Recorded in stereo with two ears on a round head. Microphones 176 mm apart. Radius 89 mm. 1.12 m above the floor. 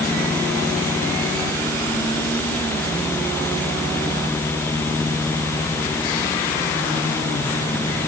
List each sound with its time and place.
Only background noise.